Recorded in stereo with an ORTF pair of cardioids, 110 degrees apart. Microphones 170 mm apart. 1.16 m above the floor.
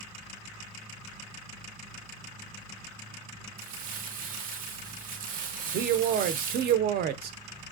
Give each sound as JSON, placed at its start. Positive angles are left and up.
{"t": 3.6, "sound": "crumpling", "azimuth_deg": -60, "distance_m": 0.5}
{"t": 5.7, "sound": "a man speaking", "azimuth_deg": -60, "distance_m": 0.5}